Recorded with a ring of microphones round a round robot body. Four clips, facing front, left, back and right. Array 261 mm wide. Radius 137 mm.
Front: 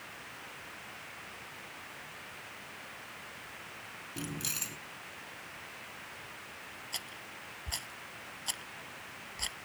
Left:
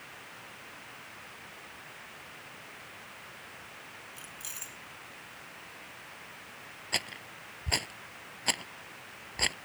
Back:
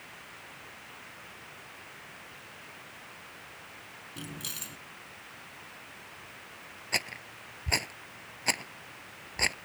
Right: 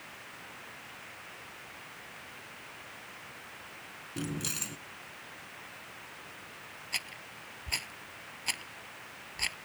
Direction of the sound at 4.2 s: 80° right.